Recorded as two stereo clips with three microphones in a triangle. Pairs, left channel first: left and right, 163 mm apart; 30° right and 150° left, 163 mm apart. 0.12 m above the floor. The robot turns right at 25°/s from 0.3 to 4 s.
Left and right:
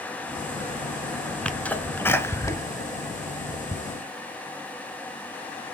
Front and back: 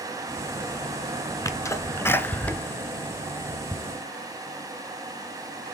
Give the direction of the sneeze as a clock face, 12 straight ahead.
12 o'clock.